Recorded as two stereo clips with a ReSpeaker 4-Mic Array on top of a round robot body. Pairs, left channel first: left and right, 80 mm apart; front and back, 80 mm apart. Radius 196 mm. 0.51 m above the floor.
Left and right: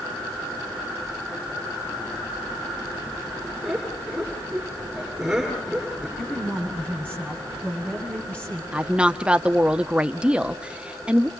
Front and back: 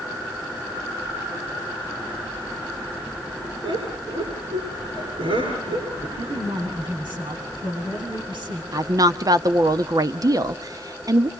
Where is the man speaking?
165° left, 8 m.